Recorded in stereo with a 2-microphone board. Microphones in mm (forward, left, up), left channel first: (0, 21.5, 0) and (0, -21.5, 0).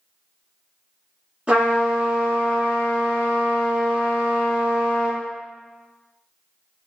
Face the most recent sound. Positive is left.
turn(degrees=-35)  # may be behind; listen again after turning